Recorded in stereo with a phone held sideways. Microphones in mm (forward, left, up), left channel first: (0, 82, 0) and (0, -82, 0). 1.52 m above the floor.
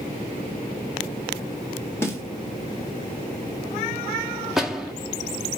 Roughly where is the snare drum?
Centre.